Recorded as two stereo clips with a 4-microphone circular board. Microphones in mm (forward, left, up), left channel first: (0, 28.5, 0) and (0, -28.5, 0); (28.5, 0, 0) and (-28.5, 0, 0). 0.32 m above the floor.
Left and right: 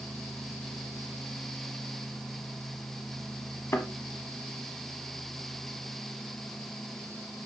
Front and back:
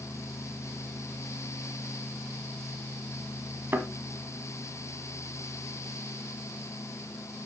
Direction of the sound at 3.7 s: 130° left.